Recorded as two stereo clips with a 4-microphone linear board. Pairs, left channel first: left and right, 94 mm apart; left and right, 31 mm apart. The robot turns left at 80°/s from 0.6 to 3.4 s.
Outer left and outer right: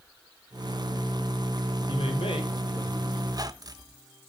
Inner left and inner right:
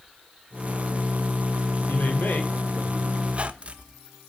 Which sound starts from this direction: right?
A squeak, at 3.3 s.